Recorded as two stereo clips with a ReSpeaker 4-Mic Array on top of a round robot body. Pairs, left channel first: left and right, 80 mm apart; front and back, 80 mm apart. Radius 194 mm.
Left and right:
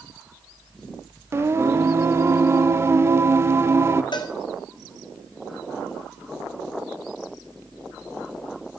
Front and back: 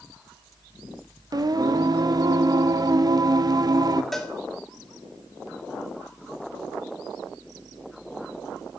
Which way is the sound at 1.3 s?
145° right.